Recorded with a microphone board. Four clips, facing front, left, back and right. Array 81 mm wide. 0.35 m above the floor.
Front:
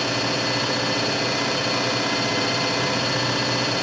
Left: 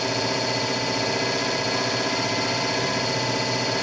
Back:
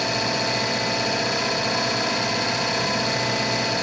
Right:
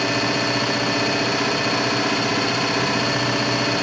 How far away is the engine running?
About 2.5 m.